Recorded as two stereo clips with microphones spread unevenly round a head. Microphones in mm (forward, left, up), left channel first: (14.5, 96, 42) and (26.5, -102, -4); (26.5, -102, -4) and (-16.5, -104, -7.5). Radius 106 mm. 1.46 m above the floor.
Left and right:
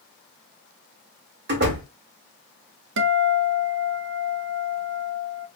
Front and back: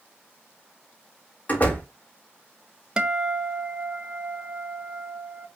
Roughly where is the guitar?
Right.